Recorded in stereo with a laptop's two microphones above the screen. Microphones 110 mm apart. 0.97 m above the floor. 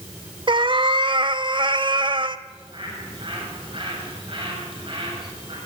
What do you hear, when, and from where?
0.5 s a cat meowing: 45° right (ahead or behind), 0.9 m
2.5 s a bird: 50° right (ahead or behind), 7.5 m